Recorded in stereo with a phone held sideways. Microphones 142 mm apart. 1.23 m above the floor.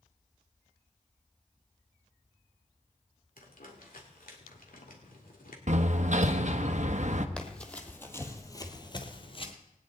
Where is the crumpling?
80° left, 2.5 m.